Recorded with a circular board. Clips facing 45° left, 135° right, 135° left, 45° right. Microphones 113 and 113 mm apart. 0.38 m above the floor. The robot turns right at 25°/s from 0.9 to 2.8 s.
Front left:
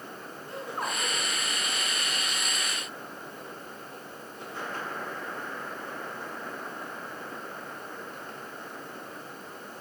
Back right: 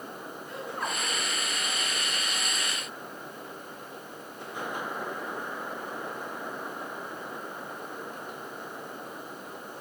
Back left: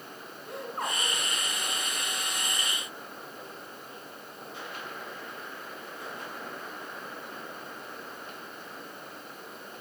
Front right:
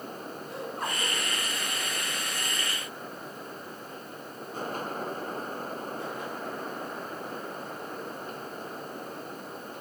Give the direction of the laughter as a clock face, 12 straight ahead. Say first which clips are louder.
Front left 1 dB, back left 1 dB; 9 o'clock.